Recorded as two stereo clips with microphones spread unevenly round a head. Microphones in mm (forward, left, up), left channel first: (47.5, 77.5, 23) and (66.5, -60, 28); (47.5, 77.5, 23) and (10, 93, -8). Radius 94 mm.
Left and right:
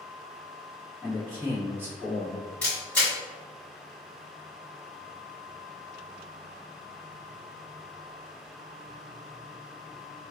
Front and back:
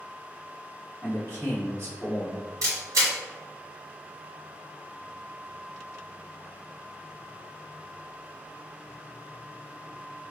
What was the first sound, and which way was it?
A man speaking, 165° right.